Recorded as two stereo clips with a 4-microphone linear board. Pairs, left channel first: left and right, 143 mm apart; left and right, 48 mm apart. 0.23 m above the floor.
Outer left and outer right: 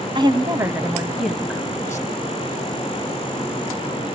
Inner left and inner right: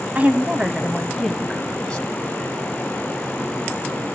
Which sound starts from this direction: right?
A woman speaking, at 0.1 s.